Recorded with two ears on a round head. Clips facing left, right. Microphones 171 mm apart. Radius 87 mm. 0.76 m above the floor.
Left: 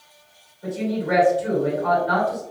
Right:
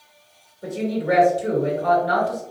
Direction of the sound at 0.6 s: 50° right (ahead or behind).